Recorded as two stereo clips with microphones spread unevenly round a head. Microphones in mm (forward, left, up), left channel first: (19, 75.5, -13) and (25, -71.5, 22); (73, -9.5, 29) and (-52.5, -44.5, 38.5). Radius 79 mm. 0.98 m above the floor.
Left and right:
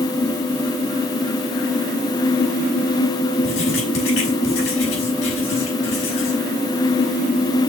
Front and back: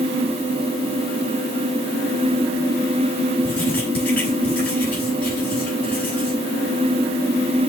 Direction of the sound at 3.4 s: 95° left.